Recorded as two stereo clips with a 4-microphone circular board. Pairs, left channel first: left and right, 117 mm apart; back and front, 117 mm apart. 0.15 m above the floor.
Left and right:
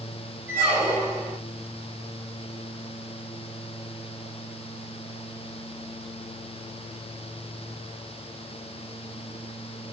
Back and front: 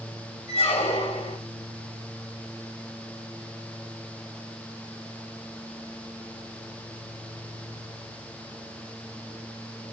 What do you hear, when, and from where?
0.5 s a squeak: 160° right, 2.5 m